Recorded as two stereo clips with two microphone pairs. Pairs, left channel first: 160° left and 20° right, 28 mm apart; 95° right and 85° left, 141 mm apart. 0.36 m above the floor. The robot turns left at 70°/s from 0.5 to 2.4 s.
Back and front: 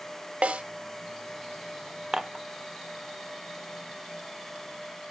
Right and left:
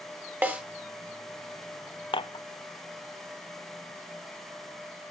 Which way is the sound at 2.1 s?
75° right.